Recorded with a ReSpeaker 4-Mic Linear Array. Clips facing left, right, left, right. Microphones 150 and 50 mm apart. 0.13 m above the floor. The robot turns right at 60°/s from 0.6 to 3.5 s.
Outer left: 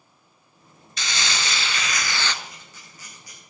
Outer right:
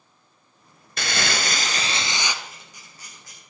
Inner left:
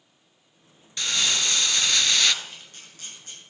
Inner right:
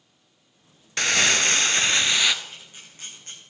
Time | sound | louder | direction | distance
1.0 | crumpling | outer right 4 dB, inner right 5 dB | 95° right | 0.7 m
2.4 | a camera shutter | even, inner right 1 dB | centre (ahead or behind) | 4.5 m